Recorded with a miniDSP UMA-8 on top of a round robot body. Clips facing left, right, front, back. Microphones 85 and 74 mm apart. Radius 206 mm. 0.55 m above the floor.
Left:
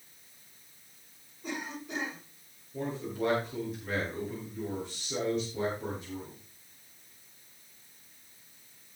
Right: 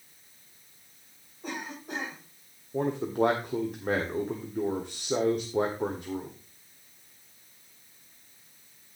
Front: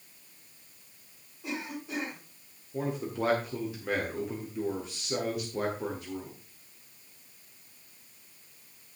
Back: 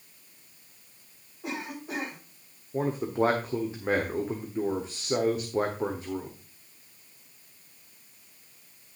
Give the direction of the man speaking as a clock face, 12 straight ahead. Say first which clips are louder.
Right 8 dB, back 5 dB; 4 o'clock.